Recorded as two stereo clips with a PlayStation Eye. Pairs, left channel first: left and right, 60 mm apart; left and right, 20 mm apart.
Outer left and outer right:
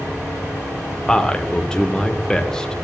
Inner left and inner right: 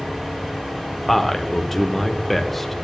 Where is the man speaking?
10° left (ahead or behind), 0.8 m.